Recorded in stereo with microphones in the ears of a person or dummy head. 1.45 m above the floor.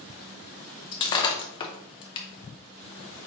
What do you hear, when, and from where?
0.9 s breaking glass: 25° left (ahead or behind), 0.6 m